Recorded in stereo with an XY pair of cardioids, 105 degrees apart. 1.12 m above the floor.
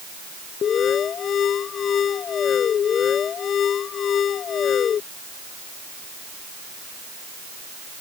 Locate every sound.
0.6 s an alarm: 55° left